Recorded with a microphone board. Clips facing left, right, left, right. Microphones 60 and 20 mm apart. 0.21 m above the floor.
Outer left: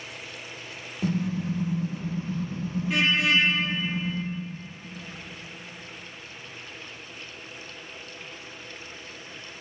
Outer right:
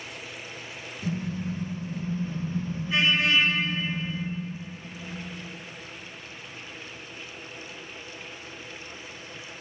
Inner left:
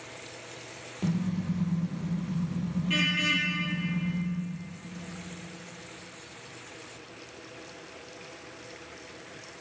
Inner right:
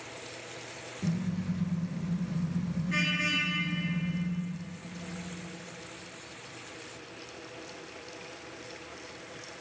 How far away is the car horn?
About 3.5 m.